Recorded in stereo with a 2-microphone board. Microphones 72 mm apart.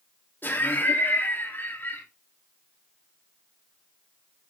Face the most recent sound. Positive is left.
turn(degrees=30)  # may be behind; listen again after turning